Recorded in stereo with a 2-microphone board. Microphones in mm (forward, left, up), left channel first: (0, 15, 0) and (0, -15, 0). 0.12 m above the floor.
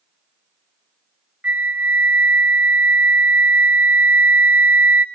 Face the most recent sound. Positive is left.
turn(degrees=-80)